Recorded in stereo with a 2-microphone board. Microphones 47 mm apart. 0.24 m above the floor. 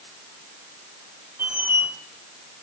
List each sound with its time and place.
1.4 s a squeak: 55° right (ahead or behind), 3 m